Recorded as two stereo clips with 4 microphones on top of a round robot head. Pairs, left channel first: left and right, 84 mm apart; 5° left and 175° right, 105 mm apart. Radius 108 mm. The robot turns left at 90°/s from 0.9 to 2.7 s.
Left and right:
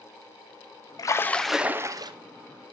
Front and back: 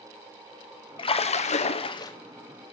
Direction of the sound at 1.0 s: 45° left.